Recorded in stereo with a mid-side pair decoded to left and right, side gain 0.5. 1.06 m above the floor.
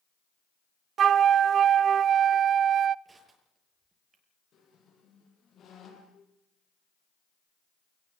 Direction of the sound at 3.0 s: 30° right.